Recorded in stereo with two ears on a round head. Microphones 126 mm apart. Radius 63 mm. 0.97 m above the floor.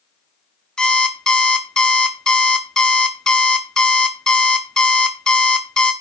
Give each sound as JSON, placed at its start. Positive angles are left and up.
{"t": 0.8, "sound": "an alarm clock", "side_deg": 5, "distance_m": 0.9}